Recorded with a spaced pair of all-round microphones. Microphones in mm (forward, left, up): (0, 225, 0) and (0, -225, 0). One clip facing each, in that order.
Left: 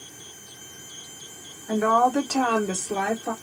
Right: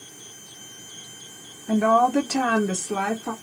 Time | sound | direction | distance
1.7 | a woman speaking | 45° right (ahead or behind) | 0.8 m